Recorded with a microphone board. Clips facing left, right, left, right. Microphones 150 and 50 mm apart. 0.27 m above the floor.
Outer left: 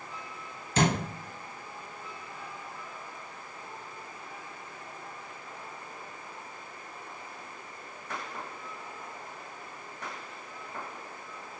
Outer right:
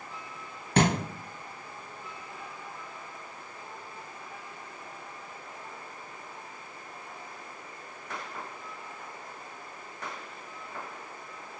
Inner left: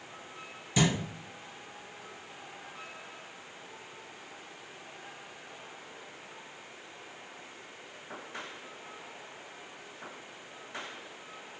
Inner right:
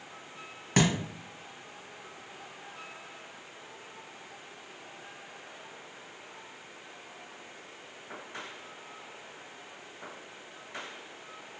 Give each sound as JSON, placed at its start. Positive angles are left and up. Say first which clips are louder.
{"t": 0.8, "sound": "a thud", "louder": "outer right 2 dB, inner right 2 dB", "side_deg": -55, "distance_m": 1.0}